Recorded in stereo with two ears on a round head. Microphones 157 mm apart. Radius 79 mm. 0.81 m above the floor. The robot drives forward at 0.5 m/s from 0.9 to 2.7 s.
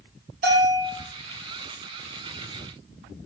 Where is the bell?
55° right (ahead or behind), 3 m.